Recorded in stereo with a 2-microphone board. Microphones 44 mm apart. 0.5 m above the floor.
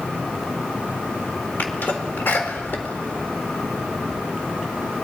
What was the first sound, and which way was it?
A sneeze, 45° left (ahead or behind).